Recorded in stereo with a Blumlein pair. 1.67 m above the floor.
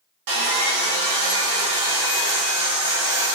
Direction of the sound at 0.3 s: 50° right.